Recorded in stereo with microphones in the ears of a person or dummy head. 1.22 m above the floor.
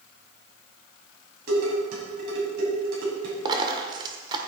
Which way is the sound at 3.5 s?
25° right (ahead or behind).